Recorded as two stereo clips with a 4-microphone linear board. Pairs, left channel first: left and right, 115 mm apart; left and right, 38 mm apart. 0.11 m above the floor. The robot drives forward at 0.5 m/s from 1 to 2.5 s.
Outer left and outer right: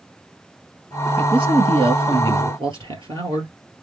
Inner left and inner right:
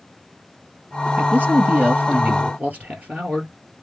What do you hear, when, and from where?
1.2 s a man speaking: 50° right (ahead or behind), 1.7 m; by 3.5 s 40° right (ahead or behind), 1.9 m